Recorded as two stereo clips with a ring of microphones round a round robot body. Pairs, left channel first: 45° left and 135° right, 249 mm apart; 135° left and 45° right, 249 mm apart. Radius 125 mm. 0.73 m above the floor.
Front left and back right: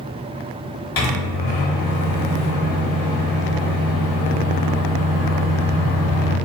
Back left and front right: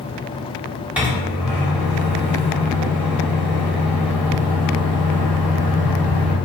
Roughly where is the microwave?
Ahead left.